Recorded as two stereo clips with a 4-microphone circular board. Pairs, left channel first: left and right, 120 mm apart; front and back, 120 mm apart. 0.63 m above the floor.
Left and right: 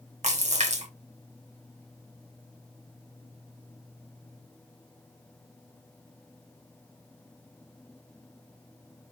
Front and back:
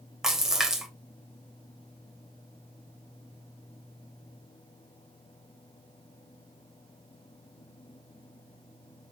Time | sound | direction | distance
0.2 | a splash | 95° right | 2.5 m